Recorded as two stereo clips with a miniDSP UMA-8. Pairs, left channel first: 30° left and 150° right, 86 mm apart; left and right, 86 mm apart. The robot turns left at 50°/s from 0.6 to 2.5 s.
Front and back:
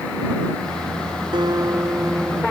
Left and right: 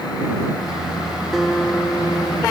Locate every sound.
1.3 s a guitar: 175° right; by 2.4 s 130° left